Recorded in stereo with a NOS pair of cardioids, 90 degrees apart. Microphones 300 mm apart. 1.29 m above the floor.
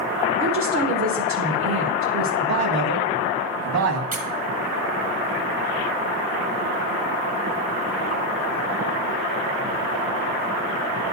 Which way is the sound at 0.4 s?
65° right.